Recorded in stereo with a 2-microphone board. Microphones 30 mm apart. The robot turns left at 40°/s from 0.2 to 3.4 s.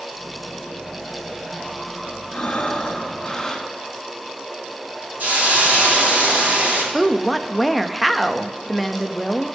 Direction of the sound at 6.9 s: Centre (ahead or behind).